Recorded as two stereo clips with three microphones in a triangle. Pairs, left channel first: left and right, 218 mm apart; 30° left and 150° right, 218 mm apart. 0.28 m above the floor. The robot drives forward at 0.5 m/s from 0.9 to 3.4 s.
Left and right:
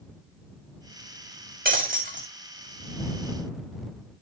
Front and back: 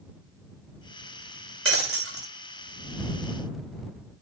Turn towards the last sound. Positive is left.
turn(degrees=-150)